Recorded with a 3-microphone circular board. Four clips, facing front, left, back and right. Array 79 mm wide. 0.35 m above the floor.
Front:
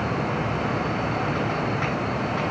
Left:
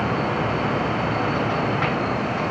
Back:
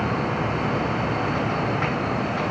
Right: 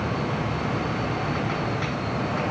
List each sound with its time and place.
Only background noise.